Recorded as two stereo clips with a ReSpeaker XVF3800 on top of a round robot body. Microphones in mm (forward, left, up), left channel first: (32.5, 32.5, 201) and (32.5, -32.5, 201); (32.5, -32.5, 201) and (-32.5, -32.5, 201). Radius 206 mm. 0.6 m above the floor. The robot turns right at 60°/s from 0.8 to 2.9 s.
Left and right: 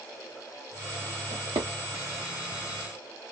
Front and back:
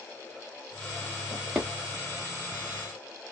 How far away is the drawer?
About 0.9 m.